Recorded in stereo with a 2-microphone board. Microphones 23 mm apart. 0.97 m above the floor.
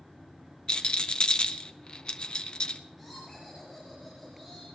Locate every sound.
0.7 s a rattle: 40° left (ahead or behind), 0.7 m
3.0 s laughter: 5° left (ahead or behind), 5 m